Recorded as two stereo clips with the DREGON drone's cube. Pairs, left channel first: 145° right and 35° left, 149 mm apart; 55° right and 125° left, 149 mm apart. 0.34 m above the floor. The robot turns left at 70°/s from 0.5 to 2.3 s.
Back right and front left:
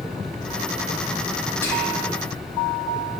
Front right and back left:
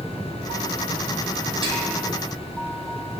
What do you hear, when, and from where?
1.6 s whispering: 150° left, 1.0 m; by 2.1 s 115° left, 1.0 m